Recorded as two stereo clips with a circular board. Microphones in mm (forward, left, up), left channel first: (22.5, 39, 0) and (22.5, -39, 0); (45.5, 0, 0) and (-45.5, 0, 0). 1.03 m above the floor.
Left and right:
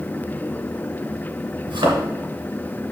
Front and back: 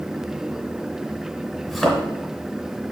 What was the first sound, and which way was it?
A thud, 90° right.